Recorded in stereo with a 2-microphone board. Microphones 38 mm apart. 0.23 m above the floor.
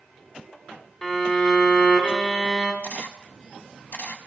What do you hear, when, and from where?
1.0 s a violin: 15° left (ahead or behind), 1.5 m
2.8 s a camera shutter: 45° left (ahead or behind), 1.0 m